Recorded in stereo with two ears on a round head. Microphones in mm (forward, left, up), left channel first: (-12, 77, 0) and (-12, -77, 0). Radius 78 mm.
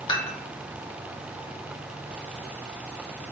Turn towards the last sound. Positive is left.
turn(degrees=25)  # may be behind; listen again after turning